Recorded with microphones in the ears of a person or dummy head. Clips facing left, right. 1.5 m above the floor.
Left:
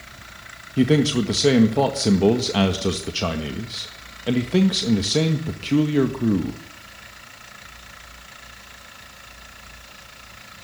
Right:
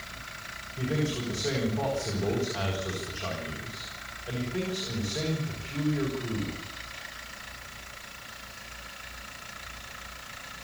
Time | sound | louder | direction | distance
0.8 | a man speaking | left 13 dB | 80° left | 1.8 m